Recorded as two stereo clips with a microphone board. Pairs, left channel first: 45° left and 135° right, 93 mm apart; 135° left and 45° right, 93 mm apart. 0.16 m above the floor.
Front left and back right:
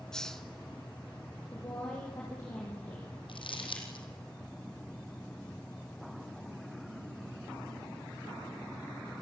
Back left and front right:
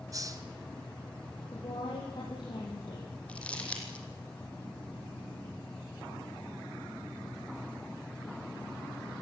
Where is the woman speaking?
95° left, 5.5 m.